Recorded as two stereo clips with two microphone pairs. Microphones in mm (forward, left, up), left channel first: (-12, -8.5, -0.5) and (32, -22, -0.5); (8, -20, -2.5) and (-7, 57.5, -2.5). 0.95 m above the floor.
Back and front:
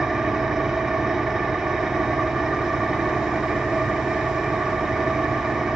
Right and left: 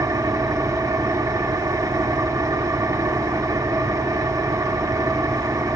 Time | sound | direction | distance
0.0 | an engine running | 60° left | 1.2 m